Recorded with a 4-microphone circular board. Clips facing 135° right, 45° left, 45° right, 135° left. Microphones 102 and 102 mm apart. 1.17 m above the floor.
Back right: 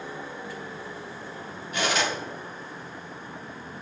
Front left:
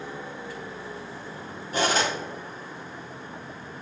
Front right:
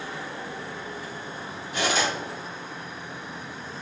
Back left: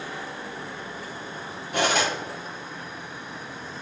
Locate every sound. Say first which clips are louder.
1.7 s cutlery clinking: front left 2 dB, back left 2 dB; 100° left, 1.6 m